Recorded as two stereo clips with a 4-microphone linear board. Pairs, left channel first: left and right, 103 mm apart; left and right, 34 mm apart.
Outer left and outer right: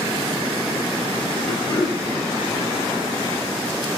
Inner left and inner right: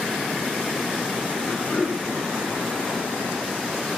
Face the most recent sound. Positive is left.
turn(degrees=45)  # may be behind; listen again after turning